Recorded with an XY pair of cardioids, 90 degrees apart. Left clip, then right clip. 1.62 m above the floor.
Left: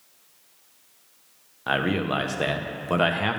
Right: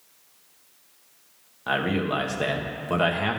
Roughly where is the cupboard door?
No cupboard door in this recording.